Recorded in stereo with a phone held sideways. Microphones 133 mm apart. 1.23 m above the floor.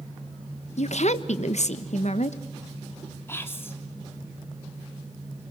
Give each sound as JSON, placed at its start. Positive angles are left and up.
{"t": 0.8, "sound": "a woman speaking", "side_deg": 65, "distance_m": 1.2}
{"t": 3.3, "sound": "whispering", "side_deg": 20, "distance_m": 3.0}